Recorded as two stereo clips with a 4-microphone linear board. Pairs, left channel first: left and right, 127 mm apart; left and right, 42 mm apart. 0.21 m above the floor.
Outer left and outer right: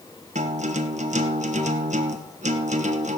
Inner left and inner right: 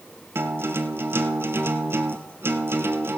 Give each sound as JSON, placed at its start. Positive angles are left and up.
{"t": 0.3, "sound": "a guitar", "side_deg": -70, "distance_m": 1.1}